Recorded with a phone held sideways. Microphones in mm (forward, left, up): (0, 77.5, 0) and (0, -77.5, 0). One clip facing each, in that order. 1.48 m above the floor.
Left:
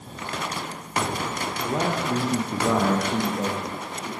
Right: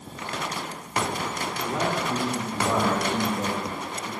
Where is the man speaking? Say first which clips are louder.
Left 2 dB; 20° left (ahead or behind), 0.8 m; by 4.1 s 75° left (ahead or behind), 1.9 m.